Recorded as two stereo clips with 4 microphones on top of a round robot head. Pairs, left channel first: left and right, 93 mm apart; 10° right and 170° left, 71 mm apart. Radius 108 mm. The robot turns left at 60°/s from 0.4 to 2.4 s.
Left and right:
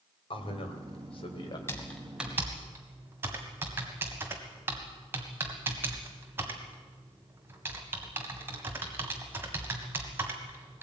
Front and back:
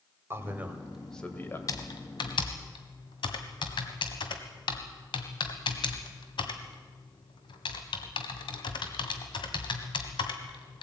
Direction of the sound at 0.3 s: 115° left.